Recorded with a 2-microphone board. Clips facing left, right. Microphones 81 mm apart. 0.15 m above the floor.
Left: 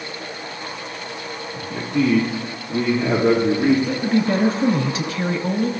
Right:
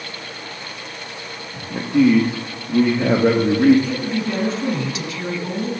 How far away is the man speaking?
About 3 m.